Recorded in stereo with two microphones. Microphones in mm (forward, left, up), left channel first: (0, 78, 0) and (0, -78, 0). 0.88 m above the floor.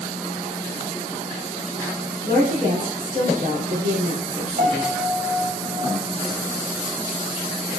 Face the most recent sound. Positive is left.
turn(degrees=-75)  # may be behind; listen again after turning